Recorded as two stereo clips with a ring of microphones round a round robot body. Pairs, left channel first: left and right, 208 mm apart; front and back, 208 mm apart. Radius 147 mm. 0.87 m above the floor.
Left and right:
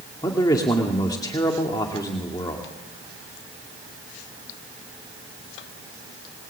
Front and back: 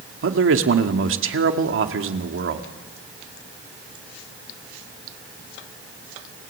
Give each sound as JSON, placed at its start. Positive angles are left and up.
{"t": 0.2, "sound": "a man speaking", "azimuth_deg": 165, "distance_m": 2.5}